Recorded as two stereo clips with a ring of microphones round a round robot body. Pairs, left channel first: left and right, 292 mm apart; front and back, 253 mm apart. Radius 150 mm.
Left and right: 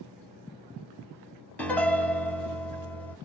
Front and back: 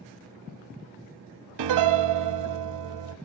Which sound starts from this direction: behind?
A piano, at 1.6 s.